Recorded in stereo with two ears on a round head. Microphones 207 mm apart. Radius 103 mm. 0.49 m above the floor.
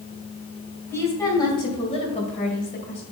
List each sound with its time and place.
0.9 s a woman speaking: 15° left (ahead or behind), 2 m; by 3.0 s 45° left (ahead or behind), 2 m